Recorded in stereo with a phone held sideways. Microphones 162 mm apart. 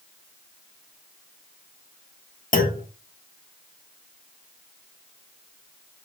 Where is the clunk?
60° left (ahead or behind), 1.4 m.